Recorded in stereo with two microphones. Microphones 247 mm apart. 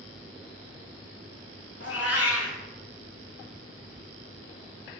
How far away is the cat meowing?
About 1.0 m.